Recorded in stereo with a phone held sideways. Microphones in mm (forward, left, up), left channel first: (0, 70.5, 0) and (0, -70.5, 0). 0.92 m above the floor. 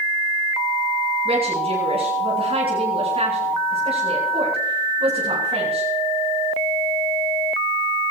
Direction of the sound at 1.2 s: 50° right (ahead or behind).